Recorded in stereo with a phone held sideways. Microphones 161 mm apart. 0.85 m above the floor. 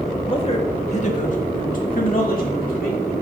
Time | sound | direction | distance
0.3 | a man speaking | 35° left (ahead or behind) | 1.2 m